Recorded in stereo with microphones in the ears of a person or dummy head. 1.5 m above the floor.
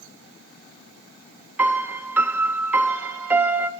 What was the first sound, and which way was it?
A piano, 5° right (ahead or behind).